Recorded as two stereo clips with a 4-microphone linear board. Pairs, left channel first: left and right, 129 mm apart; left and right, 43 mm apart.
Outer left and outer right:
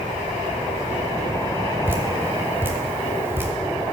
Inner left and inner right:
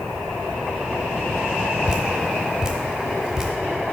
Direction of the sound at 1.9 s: 15° right (ahead or behind).